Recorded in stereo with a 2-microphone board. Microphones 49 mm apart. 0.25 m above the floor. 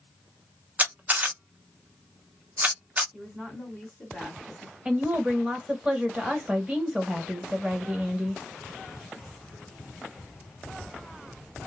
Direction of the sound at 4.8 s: 20° right (ahead or behind).